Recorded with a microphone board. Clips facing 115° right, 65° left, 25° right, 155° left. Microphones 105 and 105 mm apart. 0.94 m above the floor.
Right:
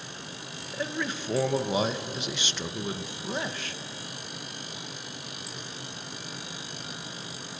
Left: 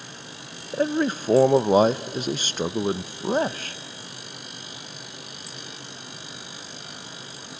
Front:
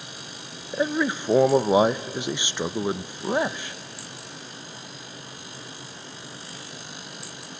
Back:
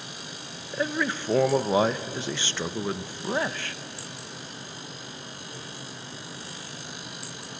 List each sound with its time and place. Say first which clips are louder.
0.7 s a man speaking: left 10 dB, front 4 dB; 45° left, 0.5 m